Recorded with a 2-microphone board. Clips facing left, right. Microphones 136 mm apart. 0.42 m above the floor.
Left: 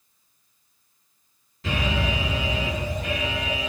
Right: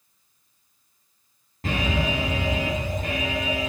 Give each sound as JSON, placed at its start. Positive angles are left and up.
{"t": 1.6, "sound": "an alarm", "side_deg": -55, "distance_m": 5.5}